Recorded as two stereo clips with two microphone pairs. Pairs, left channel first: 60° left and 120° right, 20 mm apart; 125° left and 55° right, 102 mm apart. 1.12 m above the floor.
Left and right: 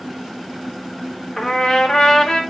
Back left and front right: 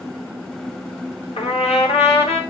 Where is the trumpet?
125° left, 2.5 m.